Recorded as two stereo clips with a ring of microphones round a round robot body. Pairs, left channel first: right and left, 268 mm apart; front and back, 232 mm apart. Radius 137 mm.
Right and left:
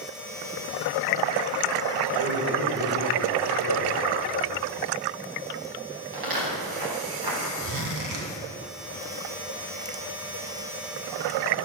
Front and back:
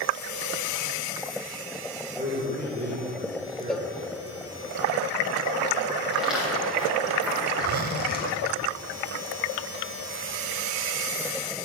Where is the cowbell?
90° left, 1.0 m.